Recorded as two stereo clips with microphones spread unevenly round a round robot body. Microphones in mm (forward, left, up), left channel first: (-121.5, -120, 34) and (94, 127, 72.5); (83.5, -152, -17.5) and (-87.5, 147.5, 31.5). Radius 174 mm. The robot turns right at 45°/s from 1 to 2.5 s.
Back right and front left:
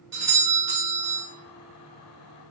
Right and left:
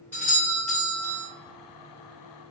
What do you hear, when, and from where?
0.1 s a doorbell: 10° left, 1.8 m; by 1.2 s 20° left, 1.8 m